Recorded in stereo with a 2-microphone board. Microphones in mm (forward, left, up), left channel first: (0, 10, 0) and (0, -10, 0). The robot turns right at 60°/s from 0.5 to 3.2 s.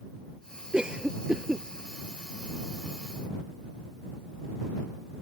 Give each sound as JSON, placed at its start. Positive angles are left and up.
{"t": 0.7, "sound": "a cough", "side_deg": -60}